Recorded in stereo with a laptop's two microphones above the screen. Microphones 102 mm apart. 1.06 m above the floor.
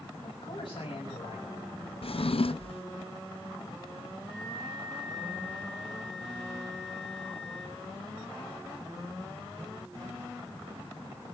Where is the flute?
Centre (ahead or behind), 9 m.